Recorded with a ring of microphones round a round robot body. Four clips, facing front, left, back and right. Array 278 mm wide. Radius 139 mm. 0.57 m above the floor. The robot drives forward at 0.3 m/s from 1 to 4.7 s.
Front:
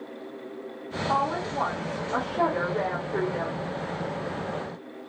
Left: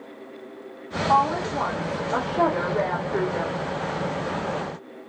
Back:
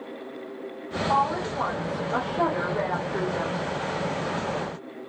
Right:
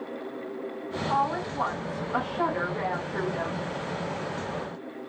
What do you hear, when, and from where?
1.1 s a woman speaking: 80° left, 2.5 m; by 3.6 s 100° left, 2.5 m